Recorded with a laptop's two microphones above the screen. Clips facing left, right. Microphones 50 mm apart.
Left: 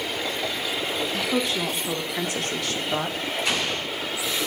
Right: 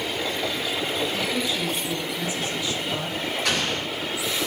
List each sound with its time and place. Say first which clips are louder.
1.1 s a woman speaking: left 1 dB; 55° left (ahead or behind), 1.4 m; by 3.2 s 45° left (ahead or behind), 1.1 m
3.5 s an explosion: right 1 dB; 70° right (ahead or behind), 4 m